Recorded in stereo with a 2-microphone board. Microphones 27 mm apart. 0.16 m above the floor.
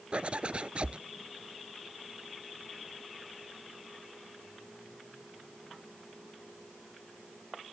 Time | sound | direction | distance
0.1 | a zipper | 50° right (ahead or behind) | ?